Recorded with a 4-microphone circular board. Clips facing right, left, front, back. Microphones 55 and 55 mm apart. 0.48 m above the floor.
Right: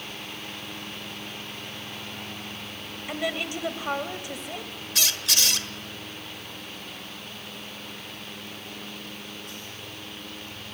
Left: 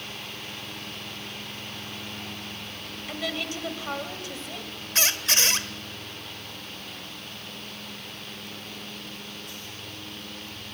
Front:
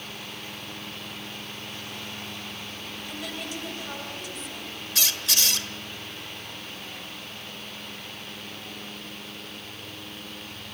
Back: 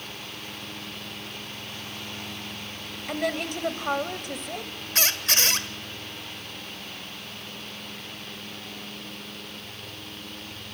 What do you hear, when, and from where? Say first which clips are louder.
3.1 s a woman speaking: right 2 dB, back 9 dB; 160° right, 2 m
5.0 s a squeak: left 2 dB, back 3 dB; 140° left, 1.4 m